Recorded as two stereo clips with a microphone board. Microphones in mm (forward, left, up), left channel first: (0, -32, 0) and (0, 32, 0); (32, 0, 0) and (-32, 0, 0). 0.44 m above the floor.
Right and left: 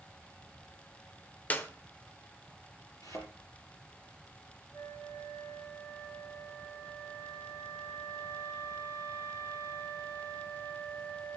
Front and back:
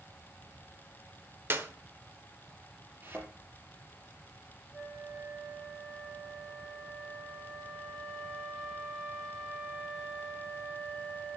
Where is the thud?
120° right, 5.5 m.